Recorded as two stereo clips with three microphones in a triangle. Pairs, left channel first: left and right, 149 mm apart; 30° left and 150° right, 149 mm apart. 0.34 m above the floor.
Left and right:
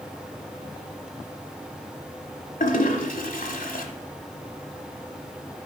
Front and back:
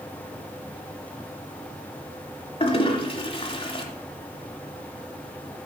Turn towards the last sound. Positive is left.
turn(degrees=75)